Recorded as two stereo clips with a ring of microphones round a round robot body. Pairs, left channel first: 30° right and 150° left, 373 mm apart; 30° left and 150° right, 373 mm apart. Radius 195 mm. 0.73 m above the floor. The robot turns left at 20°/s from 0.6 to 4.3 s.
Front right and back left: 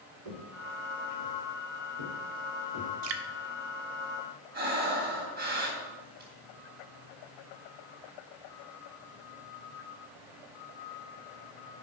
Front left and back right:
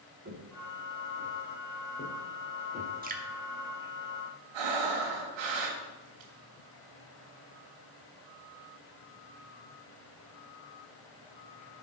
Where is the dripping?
145° left, 1.1 m; by 3.2 s 140° left, 1.1 m.